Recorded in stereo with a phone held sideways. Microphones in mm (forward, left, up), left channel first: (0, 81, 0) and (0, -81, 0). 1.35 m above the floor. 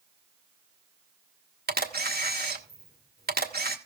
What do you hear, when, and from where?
1.7 s a camera shutter: 75° right (ahead or behind), 1.4 m